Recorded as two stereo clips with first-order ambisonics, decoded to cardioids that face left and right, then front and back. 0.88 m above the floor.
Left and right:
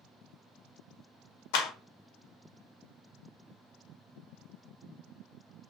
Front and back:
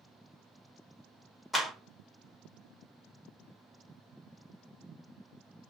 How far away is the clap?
About 0.7 m.